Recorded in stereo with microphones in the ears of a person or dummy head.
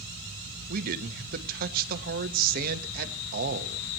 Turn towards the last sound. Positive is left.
turn(degrees=-50)  # may be behind; listen again after turning